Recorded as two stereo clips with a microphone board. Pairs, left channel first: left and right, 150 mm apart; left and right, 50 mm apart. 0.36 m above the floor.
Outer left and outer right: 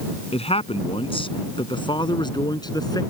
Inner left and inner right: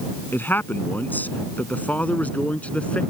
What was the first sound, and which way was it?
A man speaking, 40° left (ahead or behind).